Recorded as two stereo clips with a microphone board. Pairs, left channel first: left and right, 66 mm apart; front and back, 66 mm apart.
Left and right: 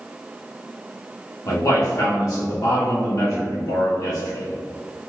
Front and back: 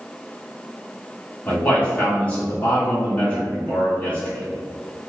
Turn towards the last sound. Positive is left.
turn(degrees=65)